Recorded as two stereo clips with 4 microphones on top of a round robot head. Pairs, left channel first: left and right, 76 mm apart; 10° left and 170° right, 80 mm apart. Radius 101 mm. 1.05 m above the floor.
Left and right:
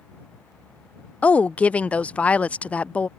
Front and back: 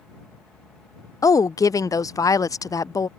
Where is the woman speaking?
25° left.